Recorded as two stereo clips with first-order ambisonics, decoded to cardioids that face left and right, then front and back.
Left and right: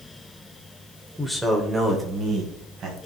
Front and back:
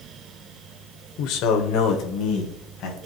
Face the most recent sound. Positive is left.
turn(degrees=-40)